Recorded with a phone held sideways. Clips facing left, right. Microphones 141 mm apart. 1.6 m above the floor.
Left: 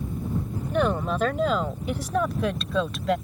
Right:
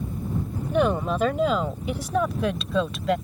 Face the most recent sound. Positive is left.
turn(degrees=-5)  # may be behind; listen again after turning